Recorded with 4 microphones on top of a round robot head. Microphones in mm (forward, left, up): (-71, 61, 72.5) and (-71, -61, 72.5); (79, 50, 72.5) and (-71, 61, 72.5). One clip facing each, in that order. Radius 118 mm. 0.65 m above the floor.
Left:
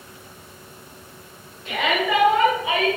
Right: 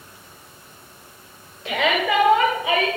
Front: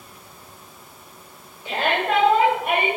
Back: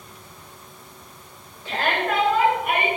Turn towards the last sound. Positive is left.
turn(degrees=-65)